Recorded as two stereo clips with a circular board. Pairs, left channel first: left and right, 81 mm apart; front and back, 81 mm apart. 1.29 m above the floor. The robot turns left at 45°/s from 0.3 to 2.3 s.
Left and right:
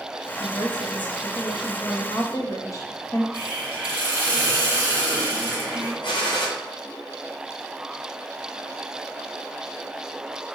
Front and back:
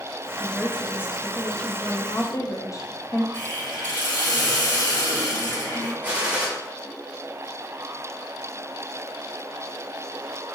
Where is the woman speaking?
130° left, 0.7 m; by 3.2 s 45° left, 0.7 m.